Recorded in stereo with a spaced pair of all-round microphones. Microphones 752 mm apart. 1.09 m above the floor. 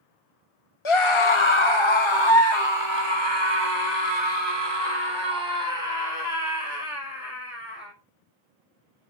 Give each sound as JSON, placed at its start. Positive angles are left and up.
{"t": 0.8, "sound": "a scream", "side_deg": 40, "distance_m": 0.8}